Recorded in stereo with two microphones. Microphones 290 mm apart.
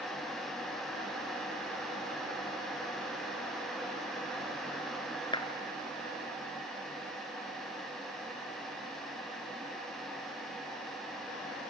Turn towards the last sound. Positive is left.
turn(degrees=15)  # may be behind; listen again after turning